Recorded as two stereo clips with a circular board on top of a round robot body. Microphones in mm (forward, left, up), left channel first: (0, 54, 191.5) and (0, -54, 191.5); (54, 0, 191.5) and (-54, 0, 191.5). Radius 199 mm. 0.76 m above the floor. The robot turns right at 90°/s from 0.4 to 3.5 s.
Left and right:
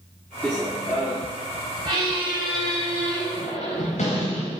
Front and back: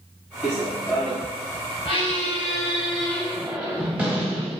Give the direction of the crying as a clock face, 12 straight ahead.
I don't hear crying.